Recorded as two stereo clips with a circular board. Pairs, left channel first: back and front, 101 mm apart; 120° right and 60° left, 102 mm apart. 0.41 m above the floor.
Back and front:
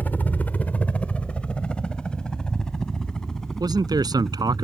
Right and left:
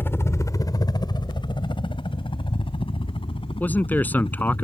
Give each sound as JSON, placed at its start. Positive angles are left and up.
{"t": 0.0, "sound": "a helicopter", "azimuth_deg": -140}
{"t": 3.6, "sound": "a man speaking", "azimuth_deg": -45}